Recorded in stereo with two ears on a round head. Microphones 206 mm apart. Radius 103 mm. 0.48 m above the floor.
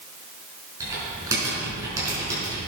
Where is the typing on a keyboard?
15° right (ahead or behind), 5 m.